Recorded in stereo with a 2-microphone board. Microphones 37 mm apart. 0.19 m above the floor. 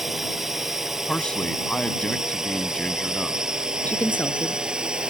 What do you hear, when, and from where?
0.0 s a drone: 10° right (ahead or behind); by 5.1 s 25° right (ahead or behind)
1.1 s a man speaking: 30° left (ahead or behind)
3.9 s a woman speaking: 60° left (ahead or behind)